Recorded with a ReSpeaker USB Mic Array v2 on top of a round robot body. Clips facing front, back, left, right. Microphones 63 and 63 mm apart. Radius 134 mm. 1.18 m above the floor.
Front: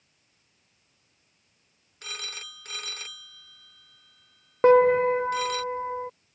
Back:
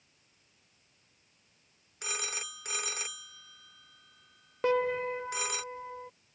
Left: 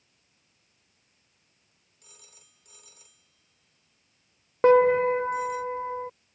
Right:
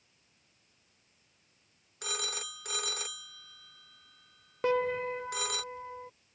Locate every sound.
2.0 s a phone ringing: 105° right
4.6 s a piano: 45° left